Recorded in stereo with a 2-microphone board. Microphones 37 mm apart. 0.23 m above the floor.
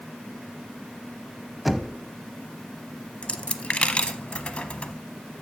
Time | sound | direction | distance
1.6 | knocking | centre (ahead or behind) | 0.8 m
3.2 | a dropped coin | 35° left (ahead or behind) | 0.6 m